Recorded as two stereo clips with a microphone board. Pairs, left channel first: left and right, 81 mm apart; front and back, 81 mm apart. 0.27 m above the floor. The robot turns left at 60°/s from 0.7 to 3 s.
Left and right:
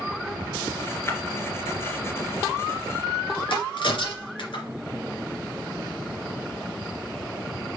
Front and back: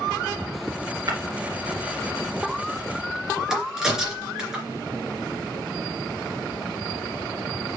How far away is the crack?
About 2.5 m.